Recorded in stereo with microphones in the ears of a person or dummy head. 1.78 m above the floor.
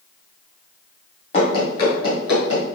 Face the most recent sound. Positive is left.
turn(degrees=40)  # may be behind; listen again after turning